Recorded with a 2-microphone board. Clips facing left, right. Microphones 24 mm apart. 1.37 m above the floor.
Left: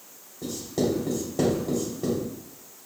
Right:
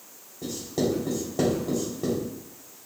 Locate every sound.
0.4 s writing: 10° right (ahead or behind), 3 m